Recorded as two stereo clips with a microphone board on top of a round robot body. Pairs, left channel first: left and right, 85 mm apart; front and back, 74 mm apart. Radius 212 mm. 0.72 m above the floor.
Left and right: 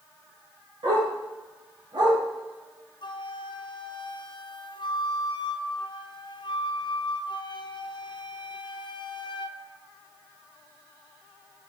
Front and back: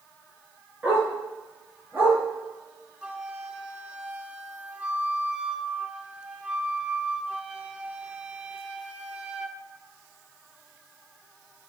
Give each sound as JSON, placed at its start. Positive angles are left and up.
{"t": 0.8, "sound": "a dog barking", "azimuth_deg": -110, "distance_m": 4.5}
{"t": 3.0, "sound": "a flute", "azimuth_deg": 105, "distance_m": 1.0}